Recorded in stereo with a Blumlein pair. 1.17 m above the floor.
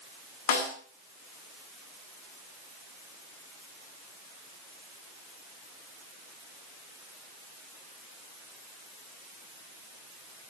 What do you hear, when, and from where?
0.5 s a snare drum: 50° left, 6.5 m